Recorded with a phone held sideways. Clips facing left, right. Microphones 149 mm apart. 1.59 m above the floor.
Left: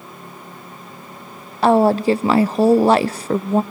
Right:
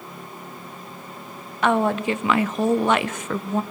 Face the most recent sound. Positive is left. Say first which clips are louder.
# left 7 dB
turn(degrees=35)  # may be behind; listen again after turning